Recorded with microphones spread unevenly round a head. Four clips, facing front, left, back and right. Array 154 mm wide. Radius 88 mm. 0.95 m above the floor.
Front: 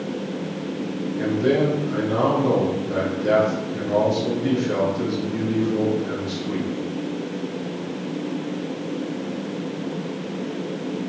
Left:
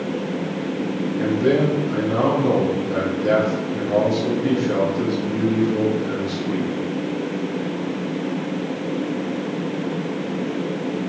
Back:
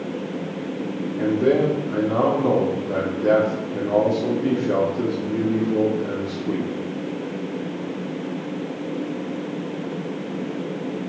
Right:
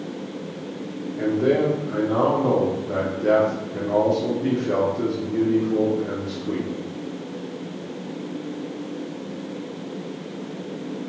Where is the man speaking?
150° right, 3 m.